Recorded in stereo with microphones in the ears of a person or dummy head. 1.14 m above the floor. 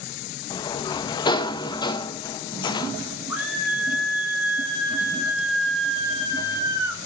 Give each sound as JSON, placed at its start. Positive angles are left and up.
{"t": 0.5, "sound": "a sliding door", "side_deg": 20, "distance_m": 0.6}
{"t": 3.3, "sound": "a scream", "side_deg": -10, "distance_m": 6.0}